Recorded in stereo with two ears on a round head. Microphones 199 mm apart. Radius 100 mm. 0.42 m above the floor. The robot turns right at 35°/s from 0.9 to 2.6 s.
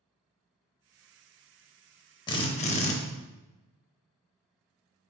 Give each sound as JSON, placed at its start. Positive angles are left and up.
{"t": 2.3, "sound": "a drill", "side_deg": 20, "distance_m": 0.5}